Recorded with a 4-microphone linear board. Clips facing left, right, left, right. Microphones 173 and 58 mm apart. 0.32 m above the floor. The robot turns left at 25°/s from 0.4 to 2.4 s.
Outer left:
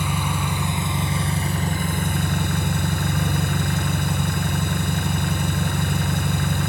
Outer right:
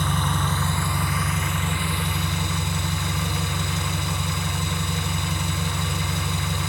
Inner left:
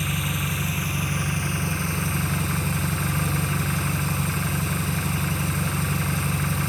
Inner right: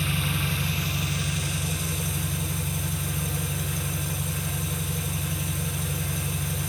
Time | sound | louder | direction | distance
0.0 | an engine running | even, inner left 1 dB | 170° left | 1.9 m